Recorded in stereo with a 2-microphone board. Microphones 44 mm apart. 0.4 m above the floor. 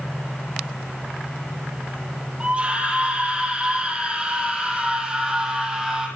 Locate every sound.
2.4 s a scream: 25° right (ahead or behind), 9.5 m; by 6.1 s 15° right (ahead or behind), 11 m